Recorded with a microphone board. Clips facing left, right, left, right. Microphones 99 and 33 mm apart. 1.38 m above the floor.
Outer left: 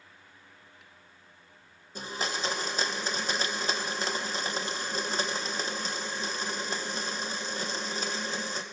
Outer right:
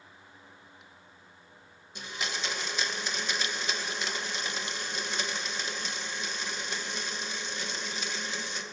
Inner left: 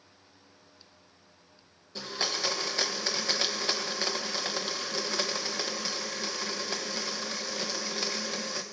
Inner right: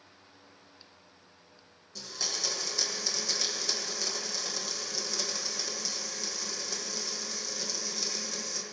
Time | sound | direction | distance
1.9 | a blender | 35° left (ahead or behind) | 1.2 m